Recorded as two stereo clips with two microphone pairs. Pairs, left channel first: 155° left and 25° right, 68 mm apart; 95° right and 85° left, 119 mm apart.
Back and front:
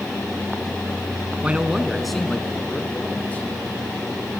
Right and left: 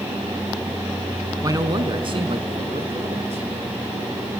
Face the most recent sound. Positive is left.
turn(degrees=90)